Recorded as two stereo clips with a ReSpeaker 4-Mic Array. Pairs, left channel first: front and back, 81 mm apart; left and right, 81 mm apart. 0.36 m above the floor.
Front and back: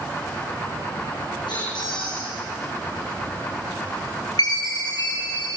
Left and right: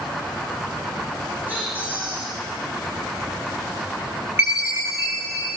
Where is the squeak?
20° right, 8.5 m.